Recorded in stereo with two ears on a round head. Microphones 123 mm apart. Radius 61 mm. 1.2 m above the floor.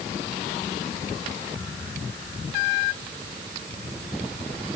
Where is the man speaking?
No man speaking in this recording.